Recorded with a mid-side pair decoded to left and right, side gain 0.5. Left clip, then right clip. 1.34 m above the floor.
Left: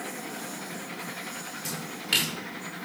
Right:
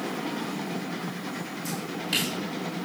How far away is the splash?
About 5.5 m.